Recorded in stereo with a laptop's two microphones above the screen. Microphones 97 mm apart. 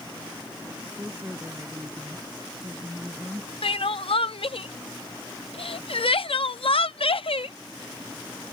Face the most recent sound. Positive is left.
turn(degrees=70)  # may be behind; listen again after turning